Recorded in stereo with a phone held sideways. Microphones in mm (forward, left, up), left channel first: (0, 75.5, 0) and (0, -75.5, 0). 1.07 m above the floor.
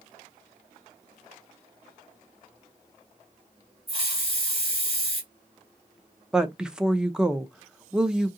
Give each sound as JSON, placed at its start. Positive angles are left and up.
{"t": 3.9, "sound": "a hiss", "side_deg": -40, "distance_m": 1.7}
{"t": 6.3, "sound": "a woman speaking", "side_deg": -5, "distance_m": 0.6}